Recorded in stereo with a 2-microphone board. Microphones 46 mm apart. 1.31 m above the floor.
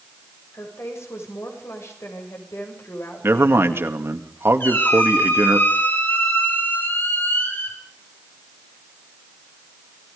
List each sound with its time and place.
0.5 s a woman speaking: 75° left (ahead or behind), 7 m
3.2 s a man speaking: 65° right (ahead or behind), 2 m
4.6 s a squeak: 55° left (ahead or behind), 7 m